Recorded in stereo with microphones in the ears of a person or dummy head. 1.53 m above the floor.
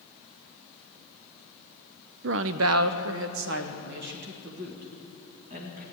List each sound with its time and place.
2.2 s a woman speaking: 60° right (ahead or behind), 0.6 m; by 5.8 s 50° right (ahead or behind), 2.5 m